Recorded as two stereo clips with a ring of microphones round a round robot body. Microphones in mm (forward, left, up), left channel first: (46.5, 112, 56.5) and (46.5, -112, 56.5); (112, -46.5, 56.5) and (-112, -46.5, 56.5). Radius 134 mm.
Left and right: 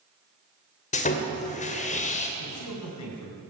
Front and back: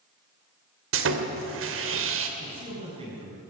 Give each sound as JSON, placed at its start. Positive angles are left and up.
{"t": 0.9, "sound": "sawing", "azimuth_deg": 150, "distance_m": 2.0}
{"t": 2.4, "sound": "a man speaking", "azimuth_deg": 110, "distance_m": 6.0}